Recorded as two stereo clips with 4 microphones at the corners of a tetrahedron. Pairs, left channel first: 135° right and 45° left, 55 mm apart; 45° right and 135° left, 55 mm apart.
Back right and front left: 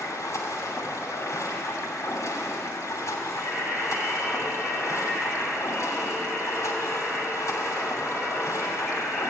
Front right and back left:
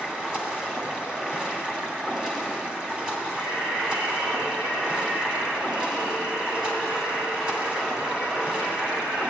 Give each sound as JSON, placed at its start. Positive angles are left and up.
{"t": 0.0, "sound": "running water", "azimuth_deg": -150, "distance_m": 2.5}
{"t": 3.3, "sound": "singing", "azimuth_deg": 140, "distance_m": 6.0}